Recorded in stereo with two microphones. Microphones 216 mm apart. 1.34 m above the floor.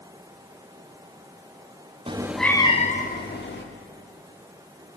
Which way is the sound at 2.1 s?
25° right (ahead or behind).